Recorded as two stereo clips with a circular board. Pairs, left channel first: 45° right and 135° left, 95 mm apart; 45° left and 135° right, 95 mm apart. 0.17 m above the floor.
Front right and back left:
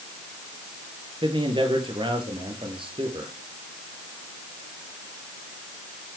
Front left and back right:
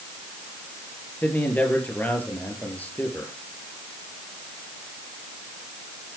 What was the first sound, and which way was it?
A man speaking, 115° left.